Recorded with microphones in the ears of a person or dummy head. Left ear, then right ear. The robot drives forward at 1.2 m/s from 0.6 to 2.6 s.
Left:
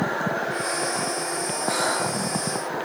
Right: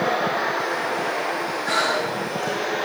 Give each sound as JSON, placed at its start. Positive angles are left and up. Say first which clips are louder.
{"t": 1.6, "sound": "breathing", "louder": "right 3 dB", "side_deg": -45, "distance_m": 4.0}